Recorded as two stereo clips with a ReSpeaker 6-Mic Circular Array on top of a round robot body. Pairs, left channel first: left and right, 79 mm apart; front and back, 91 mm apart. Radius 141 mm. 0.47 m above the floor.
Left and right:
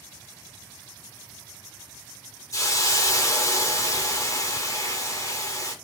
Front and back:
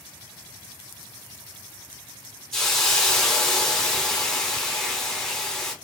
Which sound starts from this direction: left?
A hiss, at 2.5 s.